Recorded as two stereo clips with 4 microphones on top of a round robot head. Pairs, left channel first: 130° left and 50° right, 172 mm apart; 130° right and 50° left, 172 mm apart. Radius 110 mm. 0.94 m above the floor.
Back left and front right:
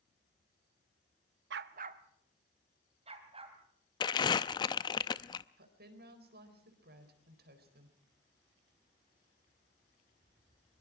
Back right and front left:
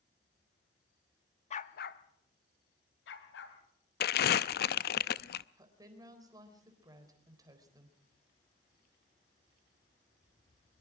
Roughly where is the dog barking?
Right.